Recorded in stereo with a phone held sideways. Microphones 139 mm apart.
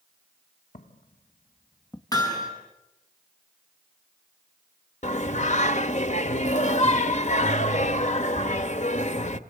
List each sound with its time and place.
0.7 s footsteps: 65° left (ahead or behind), 2 m; by 2.0 s 25° left (ahead or behind), 1.8 m
2.1 s hammering: 25° left (ahead or behind), 8 m
5.0 s singing: 55° left (ahead or behind), 1.1 m